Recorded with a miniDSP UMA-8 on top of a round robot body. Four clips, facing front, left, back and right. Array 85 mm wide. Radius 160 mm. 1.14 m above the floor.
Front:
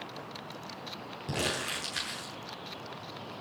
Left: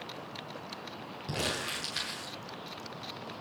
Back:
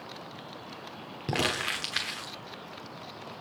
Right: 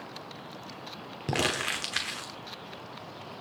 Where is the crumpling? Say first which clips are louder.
Right 6 dB, back 4 dB; 130° right, 1.1 m.